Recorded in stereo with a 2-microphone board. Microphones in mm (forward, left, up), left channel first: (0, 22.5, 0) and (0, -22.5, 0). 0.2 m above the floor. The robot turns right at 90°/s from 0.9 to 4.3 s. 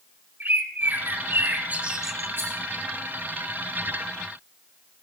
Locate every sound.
0.4 s a bird: 115° right, 1.4 m; by 2.3 s 10° left, 1.4 m
2.4 s a rattle: 55° right (ahead or behind), 8 m; by 2.5 s 70° right (ahead or behind), 8 m